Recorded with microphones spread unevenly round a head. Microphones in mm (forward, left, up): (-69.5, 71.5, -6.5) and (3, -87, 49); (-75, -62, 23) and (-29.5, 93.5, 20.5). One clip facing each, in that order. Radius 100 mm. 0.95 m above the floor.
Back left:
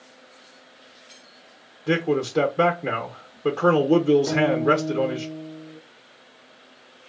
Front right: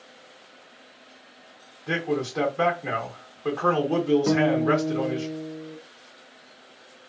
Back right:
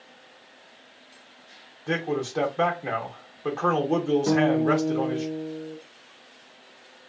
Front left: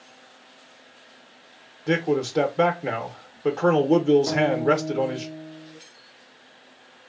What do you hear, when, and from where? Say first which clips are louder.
1.9 s a man speaking: back left 5 dB, front left 5 dB; 140° left, 0.6 m
4.3 s a guitar: even, back right 1 dB; 75° right, 1.1 m